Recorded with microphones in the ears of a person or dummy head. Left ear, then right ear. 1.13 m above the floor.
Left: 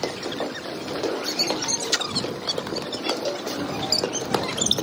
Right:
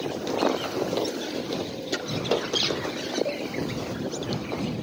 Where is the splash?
30° left (ahead or behind).